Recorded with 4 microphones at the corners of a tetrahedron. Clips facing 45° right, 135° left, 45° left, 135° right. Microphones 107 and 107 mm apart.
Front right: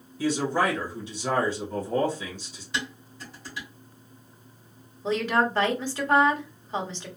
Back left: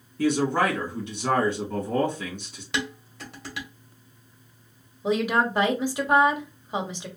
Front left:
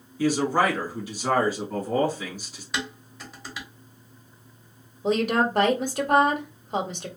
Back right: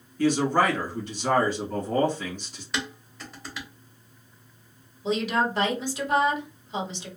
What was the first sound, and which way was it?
A man speaking, 135° left.